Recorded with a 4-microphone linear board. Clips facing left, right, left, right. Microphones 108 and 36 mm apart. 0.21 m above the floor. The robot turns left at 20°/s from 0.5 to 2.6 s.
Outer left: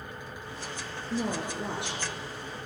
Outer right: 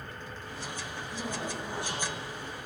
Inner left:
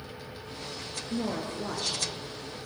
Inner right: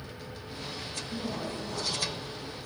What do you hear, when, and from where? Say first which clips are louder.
1.1 s a woman speaking: outer left 6 dB, inner left 4 dB; 70° left (ahead or behind), 3 m; by 2.6 s 60° left (ahead or behind), 3 m